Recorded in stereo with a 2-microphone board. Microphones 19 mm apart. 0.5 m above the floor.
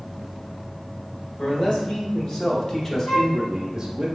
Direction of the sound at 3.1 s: 55° left (ahead or behind).